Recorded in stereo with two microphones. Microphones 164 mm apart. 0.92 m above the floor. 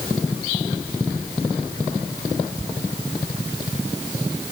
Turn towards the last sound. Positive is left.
No sound to turn to.